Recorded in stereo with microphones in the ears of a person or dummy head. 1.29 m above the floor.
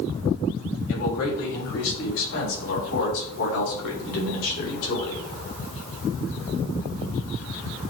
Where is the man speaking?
80° left, 3 m; by 5.2 s 85° left, 5 m.